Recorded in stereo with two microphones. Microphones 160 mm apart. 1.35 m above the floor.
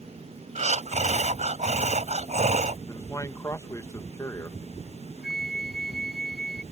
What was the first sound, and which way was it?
Breathing, 45° right (ahead or behind).